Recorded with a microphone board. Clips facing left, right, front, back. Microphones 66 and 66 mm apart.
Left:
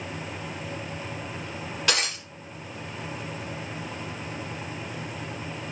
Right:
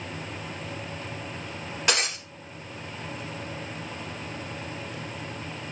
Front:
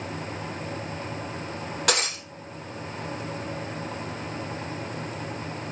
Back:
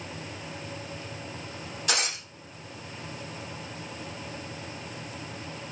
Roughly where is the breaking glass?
Ahead.